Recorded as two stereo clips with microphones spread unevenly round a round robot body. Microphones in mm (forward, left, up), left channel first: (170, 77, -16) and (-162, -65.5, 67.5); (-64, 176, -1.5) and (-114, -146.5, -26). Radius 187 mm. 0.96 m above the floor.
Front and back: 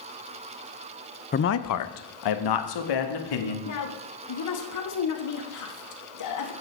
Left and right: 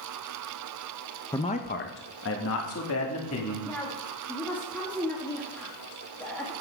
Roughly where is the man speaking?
Ahead.